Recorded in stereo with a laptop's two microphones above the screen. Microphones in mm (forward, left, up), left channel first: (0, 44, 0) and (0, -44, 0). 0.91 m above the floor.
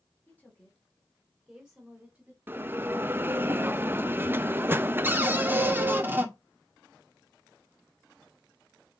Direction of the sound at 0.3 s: 20° left (ahead or behind).